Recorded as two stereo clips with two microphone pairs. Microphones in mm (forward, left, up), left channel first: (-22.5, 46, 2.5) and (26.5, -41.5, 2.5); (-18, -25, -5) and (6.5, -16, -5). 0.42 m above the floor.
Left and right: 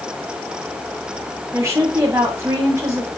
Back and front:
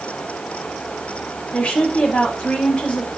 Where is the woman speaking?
120° right, 6.5 m.